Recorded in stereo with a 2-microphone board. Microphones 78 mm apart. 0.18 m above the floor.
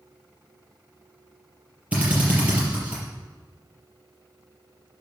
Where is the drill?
15° right (ahead or behind), 5.5 m.